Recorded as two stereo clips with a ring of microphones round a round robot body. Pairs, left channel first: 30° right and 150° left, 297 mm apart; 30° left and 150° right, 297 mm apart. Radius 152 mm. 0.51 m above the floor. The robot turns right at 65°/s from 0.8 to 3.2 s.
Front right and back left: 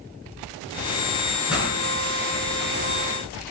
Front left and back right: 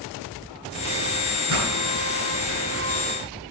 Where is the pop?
125° right, 7.5 m; by 1.7 s 110° right, 7.5 m.